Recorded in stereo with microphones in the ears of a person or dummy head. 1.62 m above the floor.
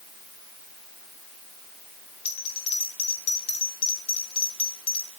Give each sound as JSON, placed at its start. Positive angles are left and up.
{"t": 2.2, "sound": "a bell", "side_deg": 35, "distance_m": 4.5}